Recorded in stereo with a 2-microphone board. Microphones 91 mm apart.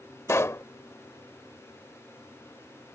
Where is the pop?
30° left (ahead or behind).